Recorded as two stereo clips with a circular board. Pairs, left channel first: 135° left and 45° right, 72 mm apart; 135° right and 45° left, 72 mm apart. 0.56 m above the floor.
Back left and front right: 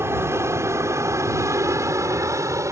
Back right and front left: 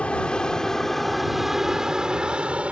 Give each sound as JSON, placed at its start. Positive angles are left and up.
{"t": 0.0, "sound": "an aircraft", "azimuth_deg": -70}